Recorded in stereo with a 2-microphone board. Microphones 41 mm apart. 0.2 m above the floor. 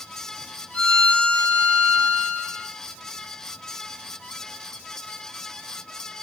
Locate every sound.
0.7 s a violin: 20° left (ahead or behind), 1.3 m